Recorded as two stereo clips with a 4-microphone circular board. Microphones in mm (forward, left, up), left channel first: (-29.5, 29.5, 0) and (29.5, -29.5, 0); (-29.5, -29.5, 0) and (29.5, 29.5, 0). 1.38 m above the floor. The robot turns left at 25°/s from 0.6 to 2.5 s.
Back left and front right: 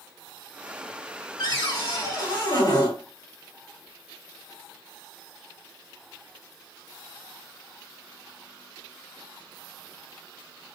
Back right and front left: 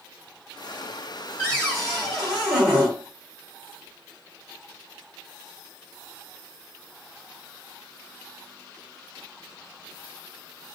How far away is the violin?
No violin in this recording.